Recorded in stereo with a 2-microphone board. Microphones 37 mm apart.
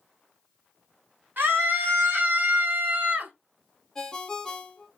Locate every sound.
1.4 s a scream: 55° right (ahead or behind), 1.9 m; by 3.3 s 45° right (ahead or behind), 1.1 m
4.0 s a ringtone: 15° left (ahead or behind), 0.6 m